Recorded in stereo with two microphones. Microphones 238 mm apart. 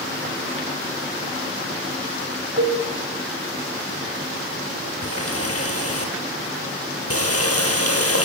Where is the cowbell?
70° right (ahead or behind), 4.5 m.